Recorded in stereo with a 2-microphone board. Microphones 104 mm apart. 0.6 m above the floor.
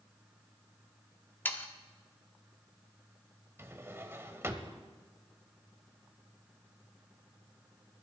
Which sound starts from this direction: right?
A drawer, at 3.6 s.